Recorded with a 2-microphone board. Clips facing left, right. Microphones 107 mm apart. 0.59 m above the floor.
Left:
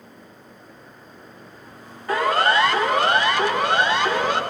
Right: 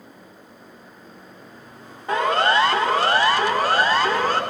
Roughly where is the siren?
Right.